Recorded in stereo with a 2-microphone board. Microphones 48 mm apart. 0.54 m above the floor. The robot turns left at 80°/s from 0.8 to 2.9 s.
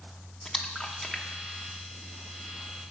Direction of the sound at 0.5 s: 10° left (ahead or behind).